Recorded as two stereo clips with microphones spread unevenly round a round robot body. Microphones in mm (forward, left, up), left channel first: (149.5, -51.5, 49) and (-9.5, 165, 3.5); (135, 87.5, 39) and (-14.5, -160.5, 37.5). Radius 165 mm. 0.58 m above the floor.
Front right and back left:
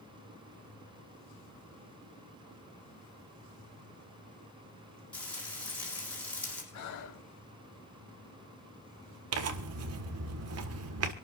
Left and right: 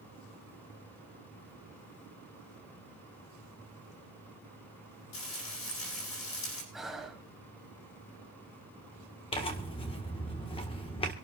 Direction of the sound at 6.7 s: 30° right.